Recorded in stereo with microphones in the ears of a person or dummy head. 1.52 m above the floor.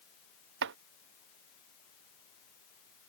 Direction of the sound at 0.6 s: 65° right (ahead or behind).